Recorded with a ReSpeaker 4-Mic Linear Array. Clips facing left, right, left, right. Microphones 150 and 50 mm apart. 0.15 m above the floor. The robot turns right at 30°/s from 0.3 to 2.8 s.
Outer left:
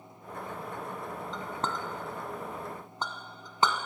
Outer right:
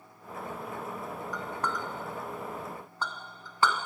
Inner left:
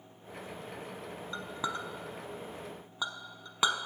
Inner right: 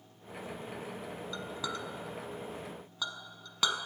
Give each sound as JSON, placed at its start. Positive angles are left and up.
{"t": 1.3, "sound": "a clink", "side_deg": 25, "distance_m": 0.7}